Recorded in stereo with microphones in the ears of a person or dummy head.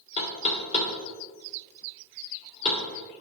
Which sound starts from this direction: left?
Knocking, at 0.2 s.